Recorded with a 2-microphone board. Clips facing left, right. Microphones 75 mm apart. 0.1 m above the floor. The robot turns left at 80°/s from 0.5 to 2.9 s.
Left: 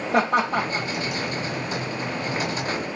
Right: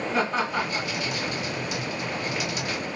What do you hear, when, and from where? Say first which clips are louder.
0.1 s laughter: left 6 dB; 60° left (ahead or behind), 5 m; by 0.9 s 35° left (ahead or behind), 5 m